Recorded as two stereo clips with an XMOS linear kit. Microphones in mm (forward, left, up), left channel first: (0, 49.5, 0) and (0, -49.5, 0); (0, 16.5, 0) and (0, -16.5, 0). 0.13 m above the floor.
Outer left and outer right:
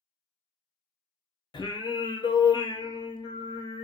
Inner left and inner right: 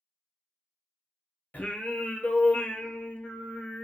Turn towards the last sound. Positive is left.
turn(degrees=50)  # may be behind; listen again after turning